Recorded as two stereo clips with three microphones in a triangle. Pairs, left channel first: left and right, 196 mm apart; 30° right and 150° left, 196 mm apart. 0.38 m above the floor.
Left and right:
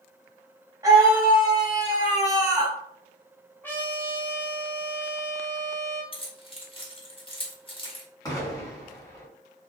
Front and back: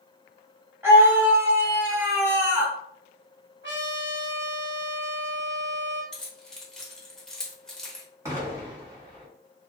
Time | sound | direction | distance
0.8 | a scream | 145° right | 1.3 m
3.6 | a trumpet | 170° left | 1.1 m
6.1 | keys jangling | 55° left | 0.8 m
8.2 | an explosion | 110° left | 1.4 m